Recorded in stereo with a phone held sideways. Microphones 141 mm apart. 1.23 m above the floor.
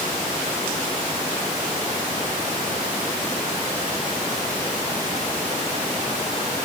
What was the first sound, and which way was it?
Only background noise.